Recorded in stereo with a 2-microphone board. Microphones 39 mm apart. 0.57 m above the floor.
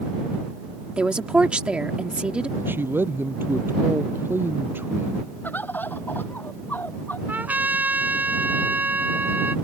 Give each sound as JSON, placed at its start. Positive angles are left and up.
{"t": 1.0, "sound": "a woman speaking", "side_deg": -30}
{"t": 2.6, "sound": "a man speaking", "side_deg": -65}
{"t": 5.4, "sound": "a bird", "side_deg": 55}
{"t": 7.3, "sound": "a trumpet", "side_deg": -50}